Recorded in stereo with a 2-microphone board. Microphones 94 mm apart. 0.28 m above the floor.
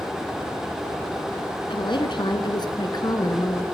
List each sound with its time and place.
1.7 s a woman speaking: 60° left (ahead or behind), 2.5 m; by 3.6 s 45° left (ahead or behind), 3 m